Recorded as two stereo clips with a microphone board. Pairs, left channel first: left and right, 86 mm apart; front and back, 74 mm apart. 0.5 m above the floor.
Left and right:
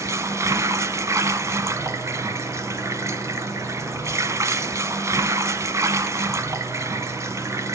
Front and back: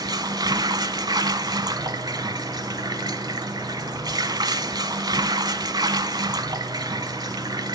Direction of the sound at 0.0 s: 150° right.